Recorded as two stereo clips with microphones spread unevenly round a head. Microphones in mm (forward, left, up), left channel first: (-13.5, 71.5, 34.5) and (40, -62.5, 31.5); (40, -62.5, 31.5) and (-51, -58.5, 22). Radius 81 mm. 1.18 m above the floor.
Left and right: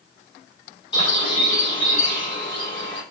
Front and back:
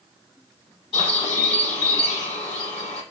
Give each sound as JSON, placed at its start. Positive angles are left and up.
{"t": 0.9, "sound": "a bird", "azimuth_deg": 55, "distance_m": 7.5}